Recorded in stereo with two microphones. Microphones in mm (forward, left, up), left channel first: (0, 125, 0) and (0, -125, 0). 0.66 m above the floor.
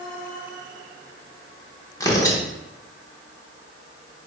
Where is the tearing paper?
15° left (ahead or behind), 0.6 m.